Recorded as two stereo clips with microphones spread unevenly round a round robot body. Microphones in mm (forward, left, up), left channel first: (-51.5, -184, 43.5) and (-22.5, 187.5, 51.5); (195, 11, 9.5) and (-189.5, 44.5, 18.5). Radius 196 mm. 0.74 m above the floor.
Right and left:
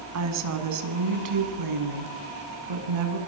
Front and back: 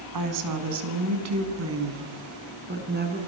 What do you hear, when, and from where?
0.1 s a woman speaking: 135° left, 6 m; by 3.2 s 105° left, 7 m